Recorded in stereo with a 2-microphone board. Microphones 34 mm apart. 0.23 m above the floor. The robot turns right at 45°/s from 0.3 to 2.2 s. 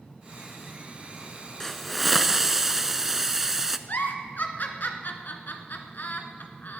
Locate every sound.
1.6 s a hiss: 15° left (ahead or behind), 0.6 m; by 3.8 s 10° right (ahead or behind), 0.6 m
3.9 s a giggle: 65° left (ahead or behind), 1.3 m